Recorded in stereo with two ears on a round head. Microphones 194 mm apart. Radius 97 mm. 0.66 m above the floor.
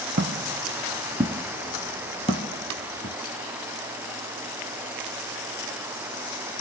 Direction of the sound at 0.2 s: 50° right (ahead or behind).